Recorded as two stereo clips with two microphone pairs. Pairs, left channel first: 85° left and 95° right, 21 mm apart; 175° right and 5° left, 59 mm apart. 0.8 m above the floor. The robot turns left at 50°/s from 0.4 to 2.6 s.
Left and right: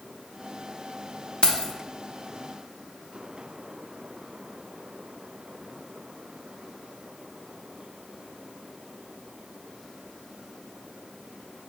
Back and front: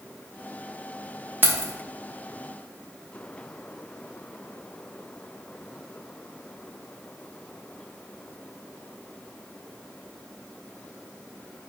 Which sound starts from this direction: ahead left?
Keys jangling, at 1.4 s.